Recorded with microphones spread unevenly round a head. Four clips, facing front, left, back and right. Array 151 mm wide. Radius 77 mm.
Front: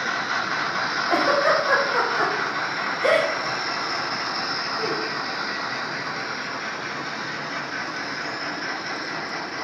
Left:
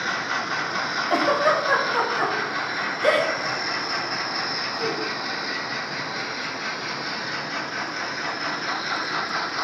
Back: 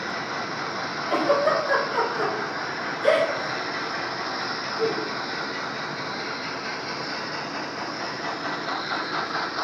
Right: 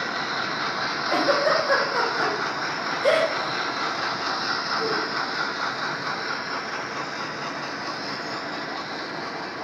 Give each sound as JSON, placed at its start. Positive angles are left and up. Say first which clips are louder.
{"t": 1.1, "sound": "a giggle", "louder": "left 1 dB, front 1 dB", "azimuth_deg": 35, "distance_m": 1.4}